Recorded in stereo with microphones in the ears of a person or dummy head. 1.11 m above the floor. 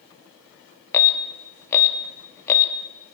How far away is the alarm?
About 1.0 m.